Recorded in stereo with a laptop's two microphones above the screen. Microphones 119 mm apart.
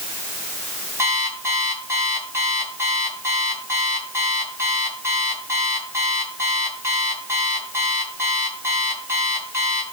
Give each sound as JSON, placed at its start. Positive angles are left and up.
{"t": 1.0, "sound": "an alarm clock", "side_deg": -25, "distance_m": 3.0}